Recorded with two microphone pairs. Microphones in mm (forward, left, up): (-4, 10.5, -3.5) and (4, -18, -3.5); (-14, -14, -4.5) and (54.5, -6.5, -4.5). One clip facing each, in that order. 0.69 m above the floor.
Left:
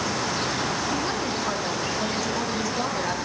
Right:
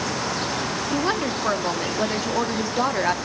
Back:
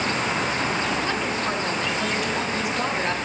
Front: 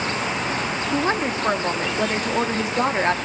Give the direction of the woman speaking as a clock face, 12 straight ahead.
1 o'clock.